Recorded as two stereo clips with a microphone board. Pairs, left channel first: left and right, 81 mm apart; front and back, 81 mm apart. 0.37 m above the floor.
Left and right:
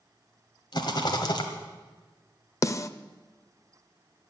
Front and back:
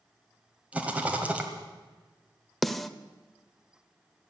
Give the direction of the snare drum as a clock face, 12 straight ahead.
9 o'clock.